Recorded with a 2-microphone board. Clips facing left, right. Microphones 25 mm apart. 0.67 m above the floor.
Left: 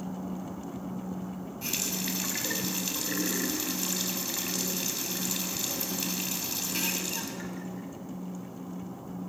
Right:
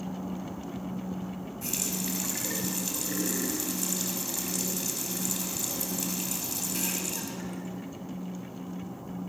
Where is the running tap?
35° left (ahead or behind), 3 m.